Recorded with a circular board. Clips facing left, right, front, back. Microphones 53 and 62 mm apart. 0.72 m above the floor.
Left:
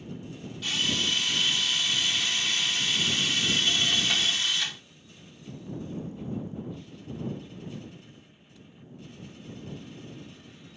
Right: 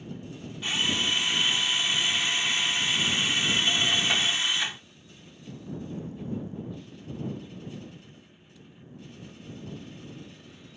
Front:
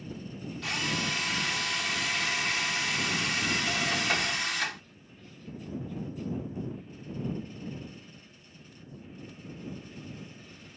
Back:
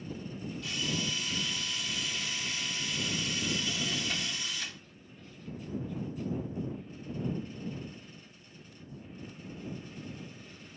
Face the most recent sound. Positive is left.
turn(degrees=-20)